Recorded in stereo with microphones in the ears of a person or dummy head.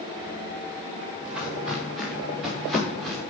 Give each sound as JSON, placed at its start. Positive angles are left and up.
{"t": 1.2, "sound": "footsteps", "side_deg": -5, "distance_m": 5.0}